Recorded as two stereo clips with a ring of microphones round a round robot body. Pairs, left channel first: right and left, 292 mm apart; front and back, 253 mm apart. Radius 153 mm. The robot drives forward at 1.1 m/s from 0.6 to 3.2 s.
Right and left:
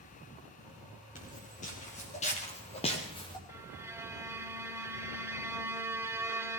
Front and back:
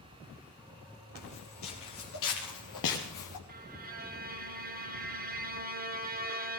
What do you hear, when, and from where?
1.1 s footsteps: 25° right, 6.5 m; by 3.4 s 15° right, 3 m
3.5 s a violin: 165° left, 1.5 m